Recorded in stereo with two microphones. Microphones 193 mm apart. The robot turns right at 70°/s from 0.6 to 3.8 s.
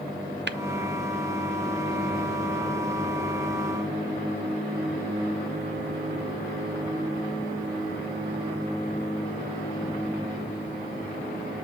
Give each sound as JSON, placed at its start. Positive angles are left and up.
{"t": 0.5, "sound": "tapping", "side_deg": -75, "distance_m": 0.6}